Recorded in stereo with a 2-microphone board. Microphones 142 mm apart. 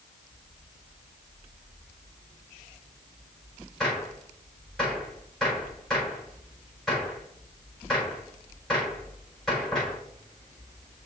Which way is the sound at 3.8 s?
Centre (ahead or behind).